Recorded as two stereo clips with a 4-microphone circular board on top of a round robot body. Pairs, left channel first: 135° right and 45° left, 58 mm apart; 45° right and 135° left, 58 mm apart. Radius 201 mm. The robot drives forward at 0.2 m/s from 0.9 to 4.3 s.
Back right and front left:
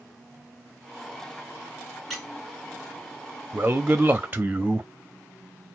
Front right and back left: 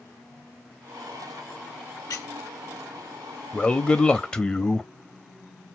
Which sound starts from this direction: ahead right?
A squeak, at 2.1 s.